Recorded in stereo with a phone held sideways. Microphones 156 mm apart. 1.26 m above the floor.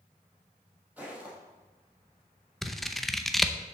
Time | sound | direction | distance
1.0 | footsteps | 10° right (ahead or behind) | 3 m
2.6 | scissors | centre (ahead or behind) | 0.6 m